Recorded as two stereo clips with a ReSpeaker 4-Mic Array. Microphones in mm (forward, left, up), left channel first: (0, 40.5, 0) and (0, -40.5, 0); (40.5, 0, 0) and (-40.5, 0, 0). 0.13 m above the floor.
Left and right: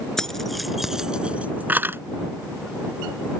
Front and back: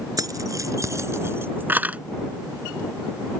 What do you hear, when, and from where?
0.2 s keys jangling: 170° left; by 2.0 s 125° right